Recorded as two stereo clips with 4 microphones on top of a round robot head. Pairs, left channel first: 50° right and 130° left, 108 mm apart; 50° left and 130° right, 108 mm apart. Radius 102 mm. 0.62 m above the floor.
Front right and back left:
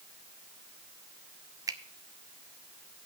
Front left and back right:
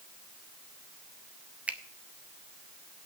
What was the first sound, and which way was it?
A finger snap, 160° left.